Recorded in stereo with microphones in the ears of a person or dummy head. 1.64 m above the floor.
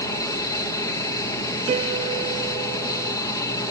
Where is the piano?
35° right (ahead or behind).